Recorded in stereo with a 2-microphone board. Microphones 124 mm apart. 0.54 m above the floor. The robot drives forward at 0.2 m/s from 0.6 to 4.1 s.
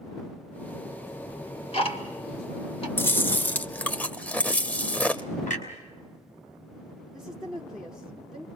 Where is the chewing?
20° left (ahead or behind), 0.5 m; by 5.2 s 15° left (ahead or behind), 0.7 m.